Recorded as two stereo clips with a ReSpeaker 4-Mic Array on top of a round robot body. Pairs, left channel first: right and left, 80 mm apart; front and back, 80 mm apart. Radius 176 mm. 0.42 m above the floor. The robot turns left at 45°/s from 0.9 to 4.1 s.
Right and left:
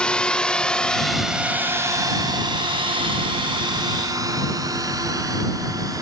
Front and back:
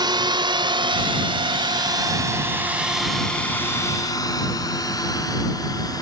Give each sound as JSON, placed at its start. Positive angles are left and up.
{"t": 0.0, "sound": "a drone", "azimuth_deg": -165}